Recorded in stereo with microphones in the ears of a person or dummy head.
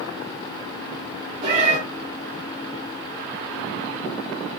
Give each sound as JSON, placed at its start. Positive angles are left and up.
{"t": 1.4, "sound": "a cat meowing", "side_deg": -50, "distance_m": 2.0}